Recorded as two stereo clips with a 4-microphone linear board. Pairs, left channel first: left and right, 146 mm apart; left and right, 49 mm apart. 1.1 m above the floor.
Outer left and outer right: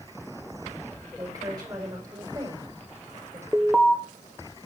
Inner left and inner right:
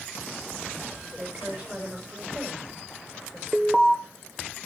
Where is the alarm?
5° right (ahead or behind), 1.2 m.